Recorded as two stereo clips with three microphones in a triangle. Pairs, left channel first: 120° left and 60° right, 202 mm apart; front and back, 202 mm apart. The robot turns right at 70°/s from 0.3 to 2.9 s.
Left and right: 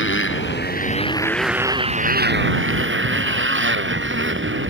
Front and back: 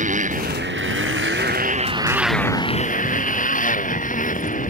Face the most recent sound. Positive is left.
turn(degrees=-50)